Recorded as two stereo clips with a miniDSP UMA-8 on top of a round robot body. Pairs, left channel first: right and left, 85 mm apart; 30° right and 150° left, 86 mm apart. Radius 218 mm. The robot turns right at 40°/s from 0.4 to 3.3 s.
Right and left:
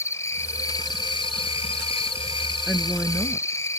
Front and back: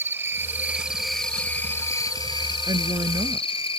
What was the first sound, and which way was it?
An insect, 145° right.